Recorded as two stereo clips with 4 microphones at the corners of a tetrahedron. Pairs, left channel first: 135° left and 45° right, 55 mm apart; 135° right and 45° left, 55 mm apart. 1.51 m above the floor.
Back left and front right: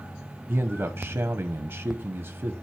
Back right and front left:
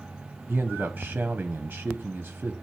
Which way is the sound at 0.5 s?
20° right.